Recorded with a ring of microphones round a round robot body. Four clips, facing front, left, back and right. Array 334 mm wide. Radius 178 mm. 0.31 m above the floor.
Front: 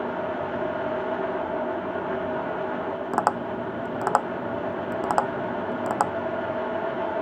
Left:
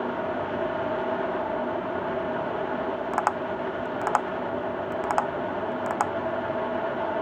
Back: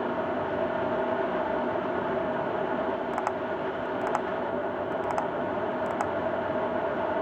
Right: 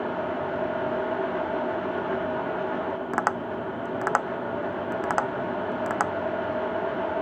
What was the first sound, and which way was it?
Tapping, 20° right.